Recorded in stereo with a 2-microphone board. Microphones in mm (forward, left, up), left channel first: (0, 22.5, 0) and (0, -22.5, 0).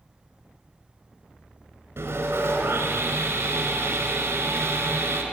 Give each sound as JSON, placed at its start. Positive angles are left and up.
{"t": 2.0, "sound": "sawing", "side_deg": -60, "distance_m": 4.0}